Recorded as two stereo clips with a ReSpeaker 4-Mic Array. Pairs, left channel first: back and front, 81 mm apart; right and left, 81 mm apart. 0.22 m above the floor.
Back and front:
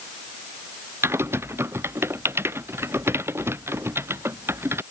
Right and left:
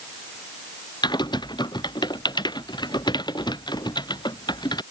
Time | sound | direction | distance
1.0 | typing on a keyboard | 60° right | ?